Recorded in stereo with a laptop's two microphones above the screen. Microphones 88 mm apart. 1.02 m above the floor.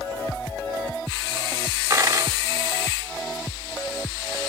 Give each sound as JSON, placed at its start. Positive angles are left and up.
{"t": 1.9, "sound": "a dropped coin", "side_deg": -35, "distance_m": 1.0}